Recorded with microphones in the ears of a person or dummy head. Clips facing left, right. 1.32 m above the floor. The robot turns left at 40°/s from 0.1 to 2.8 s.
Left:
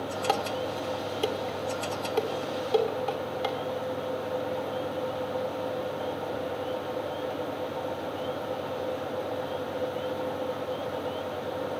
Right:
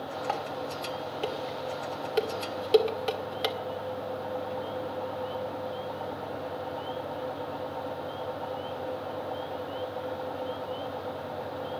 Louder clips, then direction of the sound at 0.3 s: Left 6 dB; 55° left (ahead or behind).